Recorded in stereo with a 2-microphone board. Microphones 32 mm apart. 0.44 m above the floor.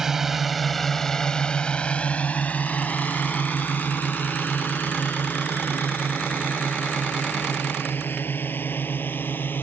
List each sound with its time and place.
0.0 s a drone: 15° right (ahead or behind); by 9.6 s 85° left